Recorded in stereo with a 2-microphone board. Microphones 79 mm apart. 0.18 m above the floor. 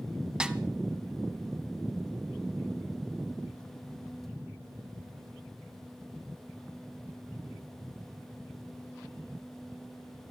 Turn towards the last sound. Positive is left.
turn(degrees=-10)  # may be behind; listen again after turning